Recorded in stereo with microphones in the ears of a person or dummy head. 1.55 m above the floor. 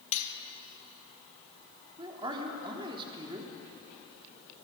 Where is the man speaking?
25° right (ahead or behind), 3 m.